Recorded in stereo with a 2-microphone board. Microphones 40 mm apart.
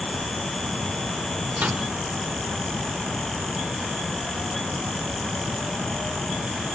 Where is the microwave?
50° right (ahead or behind), 2.5 m.